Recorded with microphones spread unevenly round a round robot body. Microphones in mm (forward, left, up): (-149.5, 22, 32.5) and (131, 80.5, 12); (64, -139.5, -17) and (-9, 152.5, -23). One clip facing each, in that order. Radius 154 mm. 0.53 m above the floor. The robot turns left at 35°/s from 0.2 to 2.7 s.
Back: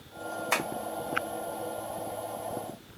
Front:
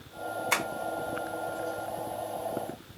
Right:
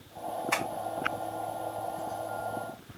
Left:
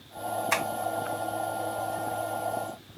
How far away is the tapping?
About 2 m.